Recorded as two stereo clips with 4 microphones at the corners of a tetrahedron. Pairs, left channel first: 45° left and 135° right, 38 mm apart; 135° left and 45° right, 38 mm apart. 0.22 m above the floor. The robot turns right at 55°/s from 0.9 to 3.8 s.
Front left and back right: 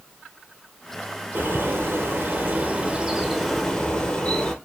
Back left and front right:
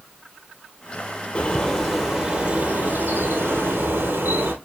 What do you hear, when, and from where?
1.4 s a bird: 165° right, 1.8 m; by 4.5 s 30° right, 1.8 m